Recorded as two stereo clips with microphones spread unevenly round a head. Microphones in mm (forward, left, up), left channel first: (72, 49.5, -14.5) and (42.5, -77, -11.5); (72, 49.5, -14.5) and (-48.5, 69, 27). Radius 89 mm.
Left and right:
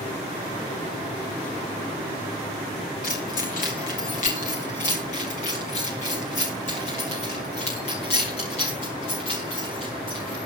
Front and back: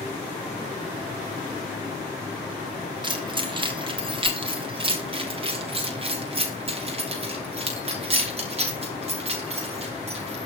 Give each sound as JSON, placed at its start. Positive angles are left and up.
{"t": 3.0, "sound": "keys jangling", "azimuth_deg": 120, "distance_m": 2.5}